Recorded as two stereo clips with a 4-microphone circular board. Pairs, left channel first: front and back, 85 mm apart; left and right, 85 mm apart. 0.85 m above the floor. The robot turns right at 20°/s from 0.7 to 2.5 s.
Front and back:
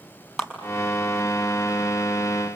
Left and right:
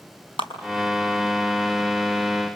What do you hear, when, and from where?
0.4 s a clap: 90° left, 5.5 m